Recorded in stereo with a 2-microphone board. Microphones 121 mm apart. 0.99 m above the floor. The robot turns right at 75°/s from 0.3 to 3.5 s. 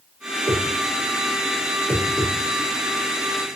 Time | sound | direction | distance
0.5 | a whoosh | 50° right (ahead or behind) | 0.5 m